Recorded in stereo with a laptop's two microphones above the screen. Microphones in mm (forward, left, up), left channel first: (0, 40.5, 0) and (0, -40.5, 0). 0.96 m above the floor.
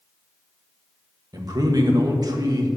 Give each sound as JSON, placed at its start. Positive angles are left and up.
{"t": 1.3, "sound": "a man speaking", "side_deg": -55, "distance_m": 1.4}